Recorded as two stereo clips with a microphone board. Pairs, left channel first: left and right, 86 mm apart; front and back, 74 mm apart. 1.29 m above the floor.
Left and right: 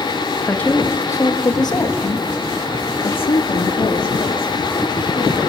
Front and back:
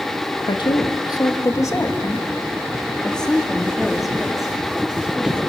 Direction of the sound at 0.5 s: 15° left.